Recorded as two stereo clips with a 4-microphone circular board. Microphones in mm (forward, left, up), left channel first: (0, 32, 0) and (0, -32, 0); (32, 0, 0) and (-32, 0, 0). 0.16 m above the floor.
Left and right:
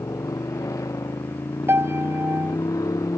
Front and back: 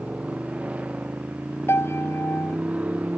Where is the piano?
45° right.